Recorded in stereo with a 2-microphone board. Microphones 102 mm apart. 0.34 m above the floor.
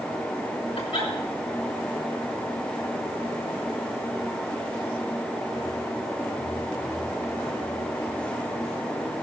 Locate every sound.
0.8 s a giggle: 75° left (ahead or behind), 5 m